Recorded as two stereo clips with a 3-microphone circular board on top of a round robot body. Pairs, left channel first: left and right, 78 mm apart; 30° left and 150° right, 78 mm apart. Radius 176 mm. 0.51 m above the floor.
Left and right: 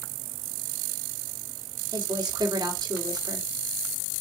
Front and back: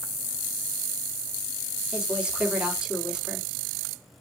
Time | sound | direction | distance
1.9 | a woman speaking | 70° right | 2 m